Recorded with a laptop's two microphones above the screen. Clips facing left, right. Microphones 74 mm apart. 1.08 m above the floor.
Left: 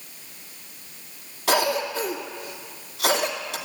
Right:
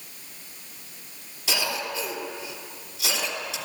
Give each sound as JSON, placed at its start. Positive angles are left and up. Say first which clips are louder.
{"t": 1.5, "sound": "a cough", "louder": "left 7 dB", "side_deg": 55, "distance_m": 2.5}